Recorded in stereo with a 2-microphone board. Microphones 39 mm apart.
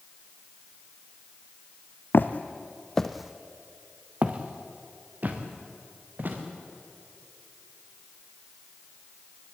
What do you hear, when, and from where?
2.1 s footsteps: 60° left (ahead or behind), 1.3 m; by 6.4 s 55° right (ahead or behind), 4.5 m